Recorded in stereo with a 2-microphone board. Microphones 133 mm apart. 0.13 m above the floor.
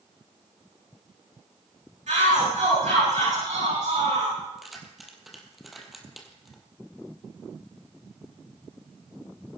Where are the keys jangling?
Centre (ahead or behind), 2 m.